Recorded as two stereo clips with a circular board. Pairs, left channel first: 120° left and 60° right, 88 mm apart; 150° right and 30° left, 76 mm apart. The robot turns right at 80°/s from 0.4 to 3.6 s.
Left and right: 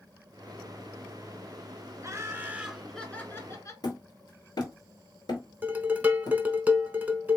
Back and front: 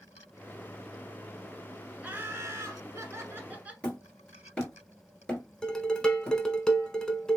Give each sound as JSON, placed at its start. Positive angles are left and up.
{"t": 2.0, "sound": "laughter", "azimuth_deg": -35, "distance_m": 1.3}
{"t": 3.8, "sound": "hammering", "azimuth_deg": 135, "distance_m": 1.7}
{"t": 5.6, "sound": "dishes clattering", "azimuth_deg": -85, "distance_m": 0.8}